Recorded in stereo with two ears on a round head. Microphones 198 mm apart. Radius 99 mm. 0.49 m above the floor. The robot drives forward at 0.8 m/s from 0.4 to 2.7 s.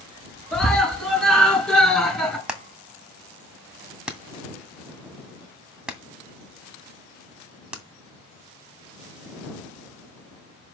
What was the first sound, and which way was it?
A scream, 5° left (ahead or behind).